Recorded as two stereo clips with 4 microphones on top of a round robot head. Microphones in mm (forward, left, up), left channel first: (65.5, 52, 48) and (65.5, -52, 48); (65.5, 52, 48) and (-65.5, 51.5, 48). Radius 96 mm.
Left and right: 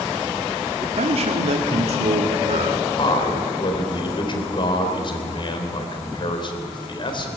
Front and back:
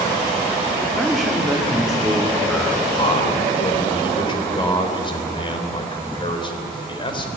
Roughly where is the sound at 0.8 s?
Right.